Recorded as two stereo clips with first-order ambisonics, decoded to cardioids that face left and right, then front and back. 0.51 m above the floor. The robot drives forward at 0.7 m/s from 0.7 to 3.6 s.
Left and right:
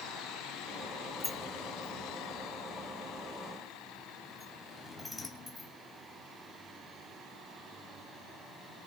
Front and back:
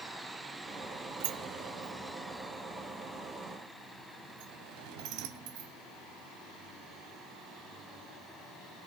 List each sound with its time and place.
1.2 s a sliding door: 165° left, 1.4 m; by 5.7 s 175° left, 3 m